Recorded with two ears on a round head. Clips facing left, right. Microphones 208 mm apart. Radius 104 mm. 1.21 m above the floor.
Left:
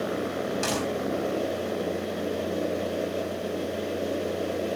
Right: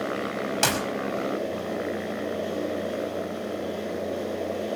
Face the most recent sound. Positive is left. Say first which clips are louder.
# right 1 dB
turn(degrees=-80)